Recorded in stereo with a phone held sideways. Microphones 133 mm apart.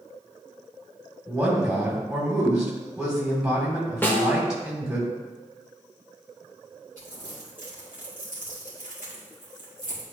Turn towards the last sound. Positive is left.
turn(degrees=85)